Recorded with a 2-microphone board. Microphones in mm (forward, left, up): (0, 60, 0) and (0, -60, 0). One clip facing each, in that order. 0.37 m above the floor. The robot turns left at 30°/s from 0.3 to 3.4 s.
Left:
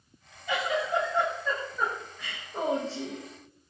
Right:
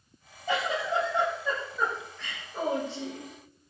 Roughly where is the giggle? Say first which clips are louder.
Even; behind right.